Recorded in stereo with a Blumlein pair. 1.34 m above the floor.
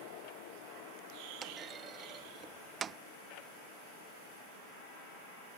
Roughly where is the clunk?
Ahead.